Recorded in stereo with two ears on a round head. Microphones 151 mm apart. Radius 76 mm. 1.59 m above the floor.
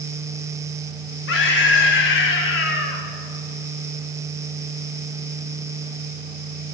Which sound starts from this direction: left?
A scream, at 1.3 s.